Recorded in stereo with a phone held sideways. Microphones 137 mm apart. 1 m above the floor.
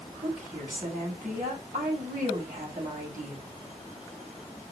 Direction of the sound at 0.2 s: 80° right.